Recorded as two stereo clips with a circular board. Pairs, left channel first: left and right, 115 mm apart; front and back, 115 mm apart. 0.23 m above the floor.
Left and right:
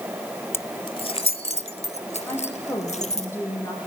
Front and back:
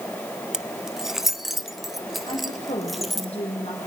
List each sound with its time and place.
0.5 s keys jangling: 105° left, 0.6 m; by 3.3 s 90° left, 4 m
2.3 s a woman speaking: 25° left, 9 m